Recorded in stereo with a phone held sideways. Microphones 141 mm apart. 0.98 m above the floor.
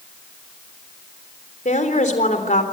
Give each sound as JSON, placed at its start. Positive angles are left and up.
{"t": 1.6, "sound": "a woman speaking", "side_deg": 65, "distance_m": 3.5}